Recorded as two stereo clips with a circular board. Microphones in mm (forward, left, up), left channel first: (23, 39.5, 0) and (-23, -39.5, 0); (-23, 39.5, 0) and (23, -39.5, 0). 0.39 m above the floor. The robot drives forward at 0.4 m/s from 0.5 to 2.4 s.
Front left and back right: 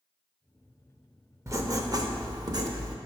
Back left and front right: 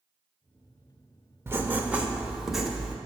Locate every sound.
1.5 s writing: 95° right, 0.5 m; by 3.0 s 145° right, 0.7 m